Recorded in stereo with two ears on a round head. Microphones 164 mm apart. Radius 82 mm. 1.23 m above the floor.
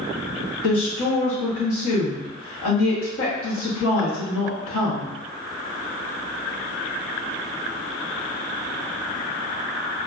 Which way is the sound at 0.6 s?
85° left.